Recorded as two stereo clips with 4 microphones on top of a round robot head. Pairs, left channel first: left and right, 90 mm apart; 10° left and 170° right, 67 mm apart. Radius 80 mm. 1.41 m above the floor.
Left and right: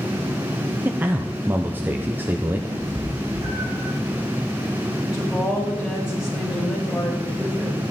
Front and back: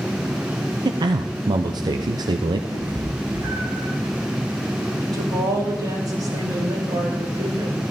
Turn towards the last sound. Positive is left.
turn(degrees=-175)